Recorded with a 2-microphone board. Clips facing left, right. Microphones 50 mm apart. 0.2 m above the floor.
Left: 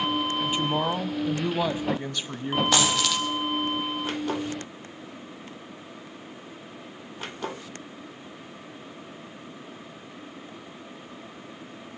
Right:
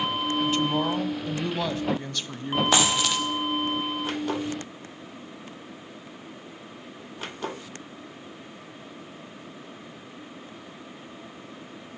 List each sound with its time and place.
0.4 s a woman speaking: 15° left (ahead or behind), 1.3 m
2.7 s a dropped coin: 15° right (ahead or behind), 4 m